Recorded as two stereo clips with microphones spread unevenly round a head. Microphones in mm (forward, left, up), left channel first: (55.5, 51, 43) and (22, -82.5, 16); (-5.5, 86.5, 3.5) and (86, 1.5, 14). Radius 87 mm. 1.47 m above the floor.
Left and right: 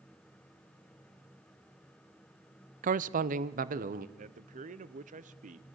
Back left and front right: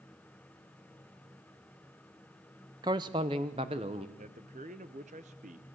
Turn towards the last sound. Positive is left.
turn(degrees=-90)